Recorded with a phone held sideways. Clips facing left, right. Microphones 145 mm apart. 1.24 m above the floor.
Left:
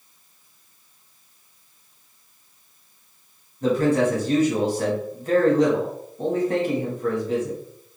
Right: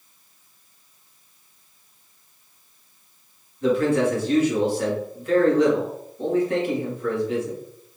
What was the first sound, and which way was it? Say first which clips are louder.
A man speaking: even; 40° left (ahead or behind).